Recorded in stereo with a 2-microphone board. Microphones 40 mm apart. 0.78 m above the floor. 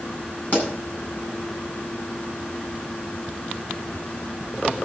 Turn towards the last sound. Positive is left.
turn(degrees=40)  # may be behind; listen again after turning